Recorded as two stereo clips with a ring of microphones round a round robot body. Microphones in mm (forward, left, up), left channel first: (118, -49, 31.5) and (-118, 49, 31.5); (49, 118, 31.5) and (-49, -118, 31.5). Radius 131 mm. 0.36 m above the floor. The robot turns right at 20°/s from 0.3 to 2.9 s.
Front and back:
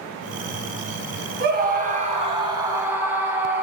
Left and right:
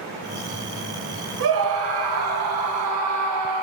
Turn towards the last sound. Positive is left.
turn(degrees=-120)